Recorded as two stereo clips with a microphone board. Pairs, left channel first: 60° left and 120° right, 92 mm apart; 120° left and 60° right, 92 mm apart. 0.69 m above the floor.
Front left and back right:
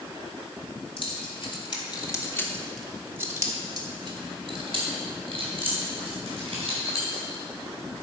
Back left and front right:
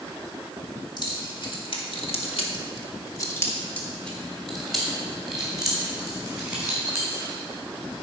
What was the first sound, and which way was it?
Keys jangling, 80° left.